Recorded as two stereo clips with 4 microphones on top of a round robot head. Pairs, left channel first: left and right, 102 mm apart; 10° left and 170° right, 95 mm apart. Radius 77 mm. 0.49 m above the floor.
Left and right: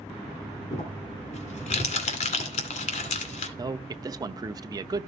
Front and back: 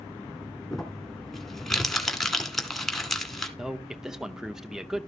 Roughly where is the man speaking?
Right.